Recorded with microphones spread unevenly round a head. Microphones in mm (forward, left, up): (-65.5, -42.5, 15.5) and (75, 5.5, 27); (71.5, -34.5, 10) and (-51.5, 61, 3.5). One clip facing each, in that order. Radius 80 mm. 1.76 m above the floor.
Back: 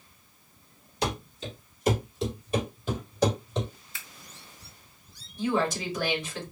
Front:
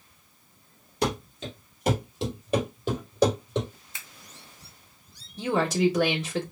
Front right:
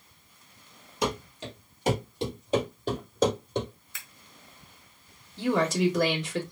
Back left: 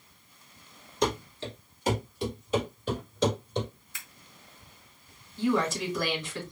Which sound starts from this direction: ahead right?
Scissors, at 3.9 s.